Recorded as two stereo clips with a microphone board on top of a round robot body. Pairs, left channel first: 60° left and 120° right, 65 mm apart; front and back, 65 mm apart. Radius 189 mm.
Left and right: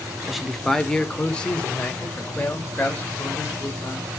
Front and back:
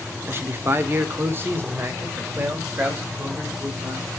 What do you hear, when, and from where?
0.3 s a man speaking: 155° left, 1.6 m; by 4.1 s 120° left, 5 m